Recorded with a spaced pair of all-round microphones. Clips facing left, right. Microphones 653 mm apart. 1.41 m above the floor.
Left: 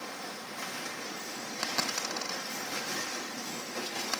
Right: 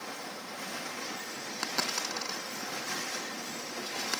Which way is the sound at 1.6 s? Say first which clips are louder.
Even; 10° left (ahead or behind).